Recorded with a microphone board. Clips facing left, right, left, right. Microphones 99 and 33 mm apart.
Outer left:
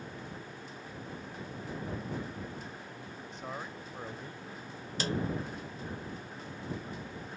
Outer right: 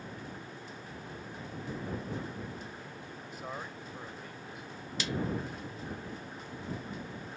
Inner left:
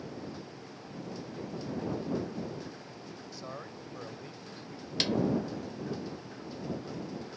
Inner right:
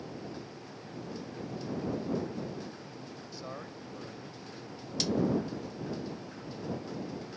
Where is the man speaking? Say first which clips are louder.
Even, inner right 1 dB; 10° right (ahead or behind); by 4.9 s 50° left (ahead or behind).